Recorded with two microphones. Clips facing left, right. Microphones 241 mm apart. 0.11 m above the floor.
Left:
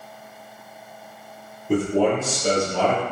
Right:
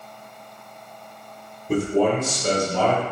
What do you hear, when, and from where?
1.7 s a man speaking: 5° left (ahead or behind), 1.8 m; by 3.0 s 10° left (ahead or behind), 1.7 m